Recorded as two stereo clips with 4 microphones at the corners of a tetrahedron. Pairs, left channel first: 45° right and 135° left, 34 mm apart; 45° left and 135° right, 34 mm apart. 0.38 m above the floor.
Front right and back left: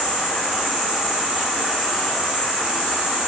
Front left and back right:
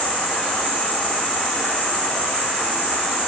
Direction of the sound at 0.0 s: 50° left.